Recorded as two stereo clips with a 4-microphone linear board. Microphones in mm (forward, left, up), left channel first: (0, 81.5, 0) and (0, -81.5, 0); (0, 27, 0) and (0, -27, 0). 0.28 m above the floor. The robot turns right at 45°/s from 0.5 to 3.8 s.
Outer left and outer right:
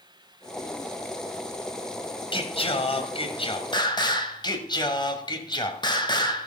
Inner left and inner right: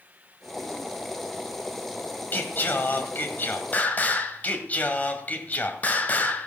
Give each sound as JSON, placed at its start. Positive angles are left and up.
{"t": 2.3, "sound": "singing", "azimuth_deg": 65, "distance_m": 1.5}